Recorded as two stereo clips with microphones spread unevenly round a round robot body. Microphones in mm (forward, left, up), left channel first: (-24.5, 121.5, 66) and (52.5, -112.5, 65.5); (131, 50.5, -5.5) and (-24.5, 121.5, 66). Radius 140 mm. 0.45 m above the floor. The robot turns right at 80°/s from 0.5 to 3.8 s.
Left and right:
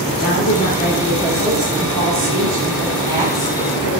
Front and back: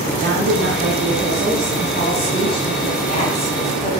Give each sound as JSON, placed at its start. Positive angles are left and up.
{"t": 0.2, "sound": "a woman speaking", "azimuth_deg": 150, "distance_m": 3.5}